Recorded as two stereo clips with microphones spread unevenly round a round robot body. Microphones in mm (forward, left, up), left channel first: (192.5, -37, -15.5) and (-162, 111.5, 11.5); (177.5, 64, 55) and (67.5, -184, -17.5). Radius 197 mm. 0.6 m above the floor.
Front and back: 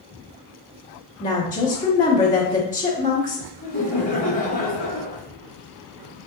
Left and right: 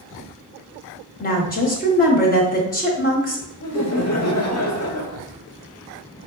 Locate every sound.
1.2 s a woman speaking: 10° left, 0.9 m
3.6 s laughter: 40° left, 1.4 m